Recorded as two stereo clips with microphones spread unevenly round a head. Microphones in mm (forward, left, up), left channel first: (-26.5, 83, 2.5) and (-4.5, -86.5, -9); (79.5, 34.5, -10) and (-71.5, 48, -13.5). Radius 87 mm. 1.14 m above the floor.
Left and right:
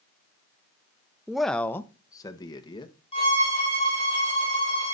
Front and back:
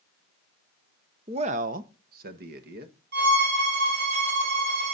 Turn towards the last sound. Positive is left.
turn(degrees=155)